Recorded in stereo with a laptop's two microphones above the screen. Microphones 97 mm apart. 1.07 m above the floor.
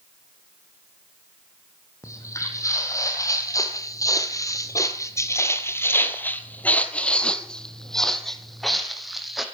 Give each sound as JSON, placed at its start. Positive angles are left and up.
{"t": 2.0, "sound": "footsteps", "side_deg": 30, "distance_m": 2.0}